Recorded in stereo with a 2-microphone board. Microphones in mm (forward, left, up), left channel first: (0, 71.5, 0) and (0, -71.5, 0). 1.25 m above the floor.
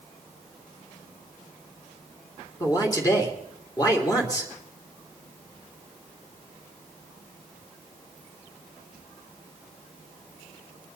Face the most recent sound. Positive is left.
turn(degrees=25)  # may be behind; listen again after turning